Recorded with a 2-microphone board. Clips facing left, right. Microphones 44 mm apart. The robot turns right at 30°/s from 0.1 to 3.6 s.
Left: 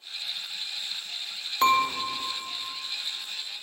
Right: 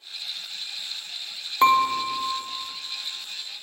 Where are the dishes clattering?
25° right (ahead or behind), 0.6 m.